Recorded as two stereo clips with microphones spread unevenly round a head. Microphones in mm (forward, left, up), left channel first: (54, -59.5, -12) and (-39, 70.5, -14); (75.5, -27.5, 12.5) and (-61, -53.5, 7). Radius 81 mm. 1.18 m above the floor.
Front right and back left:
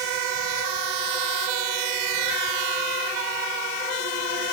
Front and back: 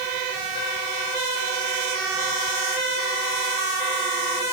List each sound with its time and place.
Only background noise.